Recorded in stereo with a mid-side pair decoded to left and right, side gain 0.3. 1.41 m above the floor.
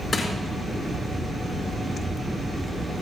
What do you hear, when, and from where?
0.1 s crushing: 45° left, 5.5 m